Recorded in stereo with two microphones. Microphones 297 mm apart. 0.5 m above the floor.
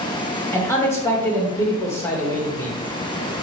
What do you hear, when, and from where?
0.5 s a man speaking: 10° left (ahead or behind), 1.4 m